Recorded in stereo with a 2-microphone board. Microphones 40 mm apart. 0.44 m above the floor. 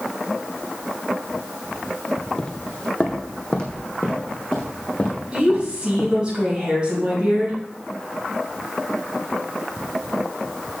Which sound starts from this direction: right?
A woman speaking, at 5.3 s.